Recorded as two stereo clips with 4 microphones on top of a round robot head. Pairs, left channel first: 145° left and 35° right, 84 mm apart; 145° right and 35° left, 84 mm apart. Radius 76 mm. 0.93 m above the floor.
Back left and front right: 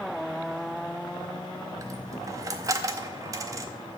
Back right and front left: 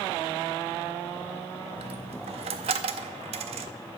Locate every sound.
1.8 s a dropped coin: 20° left, 0.5 m